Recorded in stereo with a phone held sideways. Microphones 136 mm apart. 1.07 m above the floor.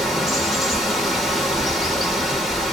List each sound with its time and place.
0.0 s running water: centre (ahead or behind), 0.8 m